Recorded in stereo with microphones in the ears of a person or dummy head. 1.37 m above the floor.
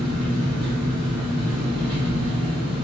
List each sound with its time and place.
0.0 s an engine running: 20° right (ahead or behind), 1.3 m